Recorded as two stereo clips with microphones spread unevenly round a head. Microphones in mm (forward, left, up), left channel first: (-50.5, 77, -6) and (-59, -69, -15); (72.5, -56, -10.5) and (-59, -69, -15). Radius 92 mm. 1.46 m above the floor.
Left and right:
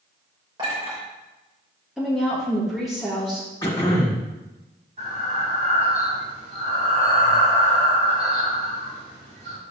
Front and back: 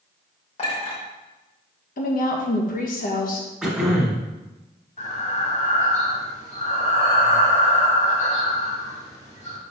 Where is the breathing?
30° right, 2.5 m.